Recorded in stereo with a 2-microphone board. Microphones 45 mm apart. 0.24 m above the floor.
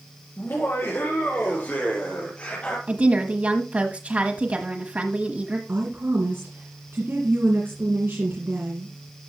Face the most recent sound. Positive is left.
turn(degrees=-55)  # may be behind; listen again after turning